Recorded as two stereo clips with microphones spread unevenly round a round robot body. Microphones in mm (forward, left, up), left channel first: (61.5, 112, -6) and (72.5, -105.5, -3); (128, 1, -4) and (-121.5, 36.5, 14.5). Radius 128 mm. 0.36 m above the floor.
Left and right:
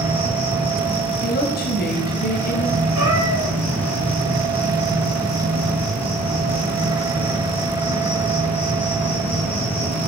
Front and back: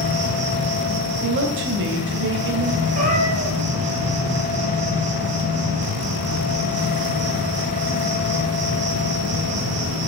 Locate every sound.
0.0 s an insect: 170° left, 3 m
1.2 s a woman speaking: 135° left, 2.5 m
3.0 s a cat meowing: 125° right, 3.5 m